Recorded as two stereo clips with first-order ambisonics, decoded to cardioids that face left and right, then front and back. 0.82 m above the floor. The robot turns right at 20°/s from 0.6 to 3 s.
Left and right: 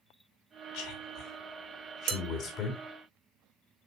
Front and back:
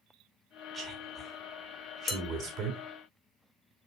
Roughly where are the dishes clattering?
Ahead right.